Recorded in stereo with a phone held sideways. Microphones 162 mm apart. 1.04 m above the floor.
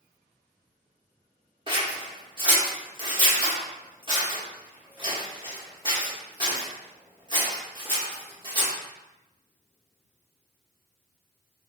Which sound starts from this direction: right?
Scissors, at 1.7 s.